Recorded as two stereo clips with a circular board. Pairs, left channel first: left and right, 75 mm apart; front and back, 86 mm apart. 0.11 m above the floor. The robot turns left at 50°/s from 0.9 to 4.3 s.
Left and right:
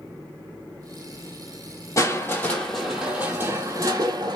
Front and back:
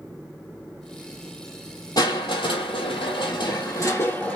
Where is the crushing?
45° left, 1.0 m; by 4.4 s 75° right, 1.0 m.